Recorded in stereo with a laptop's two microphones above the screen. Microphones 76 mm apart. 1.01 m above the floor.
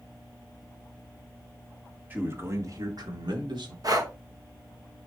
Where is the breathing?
55° right (ahead or behind), 1.3 m.